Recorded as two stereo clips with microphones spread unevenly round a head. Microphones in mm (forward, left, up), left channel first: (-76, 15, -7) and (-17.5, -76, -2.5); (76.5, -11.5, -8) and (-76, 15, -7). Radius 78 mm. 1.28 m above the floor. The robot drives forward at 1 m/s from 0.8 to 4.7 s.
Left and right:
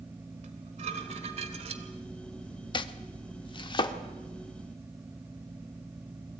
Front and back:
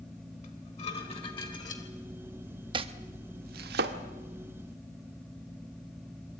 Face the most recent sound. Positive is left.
turn(degrees=170)